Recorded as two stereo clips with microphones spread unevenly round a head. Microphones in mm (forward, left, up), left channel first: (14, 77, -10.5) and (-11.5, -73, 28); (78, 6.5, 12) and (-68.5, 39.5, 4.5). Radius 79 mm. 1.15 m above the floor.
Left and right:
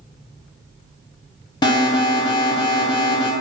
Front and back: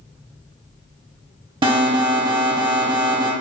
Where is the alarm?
120° left, 0.7 m.